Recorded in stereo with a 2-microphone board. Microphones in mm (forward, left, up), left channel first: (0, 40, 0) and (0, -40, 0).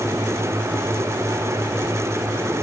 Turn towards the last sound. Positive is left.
No sound to turn to.